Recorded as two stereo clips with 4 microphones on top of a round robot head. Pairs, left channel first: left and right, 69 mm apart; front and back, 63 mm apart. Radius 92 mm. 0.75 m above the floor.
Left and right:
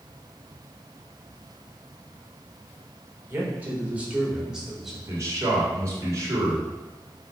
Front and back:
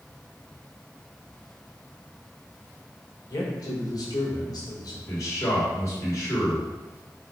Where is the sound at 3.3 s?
30° right, 3 m; by 5.0 s 5° right, 3 m.